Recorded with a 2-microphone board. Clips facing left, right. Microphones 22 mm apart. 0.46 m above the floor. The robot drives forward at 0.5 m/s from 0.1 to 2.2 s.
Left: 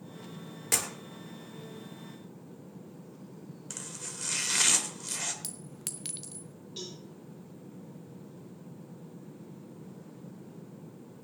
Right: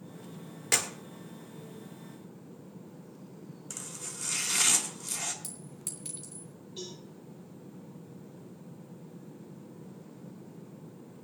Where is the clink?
65° left (ahead or behind), 0.9 m.